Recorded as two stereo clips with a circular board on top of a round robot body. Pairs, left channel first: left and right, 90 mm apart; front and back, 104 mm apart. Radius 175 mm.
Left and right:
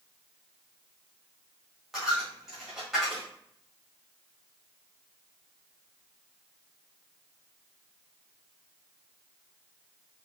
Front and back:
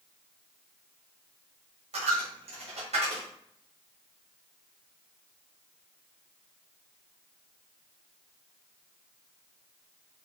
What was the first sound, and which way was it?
A dropped coin, straight behind.